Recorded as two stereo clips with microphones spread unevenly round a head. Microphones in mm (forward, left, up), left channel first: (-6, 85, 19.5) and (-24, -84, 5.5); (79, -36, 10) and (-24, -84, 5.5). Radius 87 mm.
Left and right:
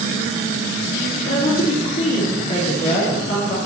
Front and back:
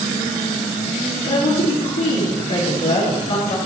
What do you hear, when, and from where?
1.2 s a woman speaking: 30° left, 3 m